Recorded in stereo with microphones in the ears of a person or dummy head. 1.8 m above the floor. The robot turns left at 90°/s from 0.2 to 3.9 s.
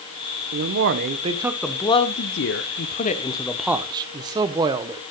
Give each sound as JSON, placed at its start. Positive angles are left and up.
{"t": 0.5, "sound": "a man speaking", "azimuth_deg": -85, "distance_m": 1.1}